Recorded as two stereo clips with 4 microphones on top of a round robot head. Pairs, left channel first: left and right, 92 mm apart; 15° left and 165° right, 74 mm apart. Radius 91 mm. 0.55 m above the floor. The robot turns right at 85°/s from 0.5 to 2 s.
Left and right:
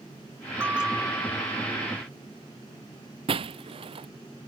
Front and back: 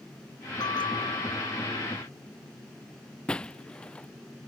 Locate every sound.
0.6 s a bell: 25° right; by 1.8 s 70° left
3.3 s breaking glass: 65° right